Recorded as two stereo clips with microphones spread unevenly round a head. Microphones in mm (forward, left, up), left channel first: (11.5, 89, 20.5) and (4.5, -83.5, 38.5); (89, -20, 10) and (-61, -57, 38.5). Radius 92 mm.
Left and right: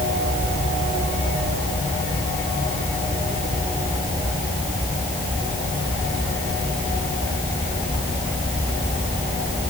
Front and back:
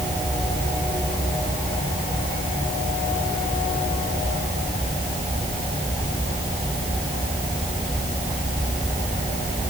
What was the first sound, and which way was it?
Only background noise.